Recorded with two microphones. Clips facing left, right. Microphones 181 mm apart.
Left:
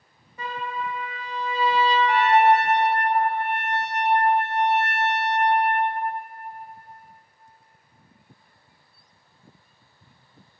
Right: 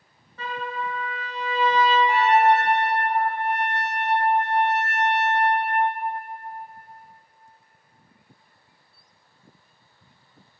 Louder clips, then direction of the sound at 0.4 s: Even; 15° left (ahead or behind).